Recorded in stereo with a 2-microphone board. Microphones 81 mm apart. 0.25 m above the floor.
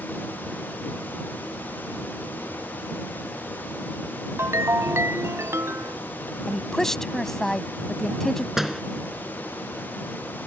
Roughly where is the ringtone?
Right.